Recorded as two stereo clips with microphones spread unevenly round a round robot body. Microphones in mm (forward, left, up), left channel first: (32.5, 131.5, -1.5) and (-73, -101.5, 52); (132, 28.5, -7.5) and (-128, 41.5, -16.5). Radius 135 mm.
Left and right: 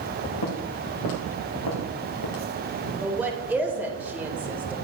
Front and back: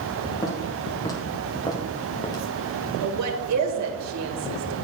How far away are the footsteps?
About 4 m.